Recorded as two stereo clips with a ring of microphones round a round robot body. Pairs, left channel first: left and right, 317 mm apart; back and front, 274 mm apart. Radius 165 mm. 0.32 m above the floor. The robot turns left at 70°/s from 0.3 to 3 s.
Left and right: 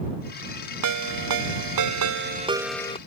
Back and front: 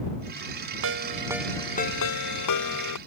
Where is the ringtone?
50° right; by 3.0 s 160° left.